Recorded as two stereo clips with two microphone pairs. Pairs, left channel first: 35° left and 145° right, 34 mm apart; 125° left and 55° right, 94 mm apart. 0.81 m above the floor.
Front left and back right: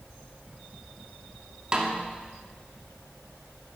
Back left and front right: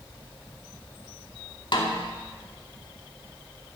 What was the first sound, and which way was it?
A snare drum, 150° left.